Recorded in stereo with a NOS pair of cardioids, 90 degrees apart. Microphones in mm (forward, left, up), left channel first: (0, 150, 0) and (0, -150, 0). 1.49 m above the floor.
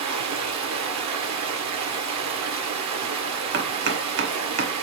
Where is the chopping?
40° right, 1.0 m.